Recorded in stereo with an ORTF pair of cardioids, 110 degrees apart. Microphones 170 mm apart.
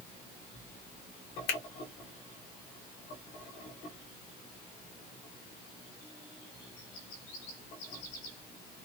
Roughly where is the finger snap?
Ahead left.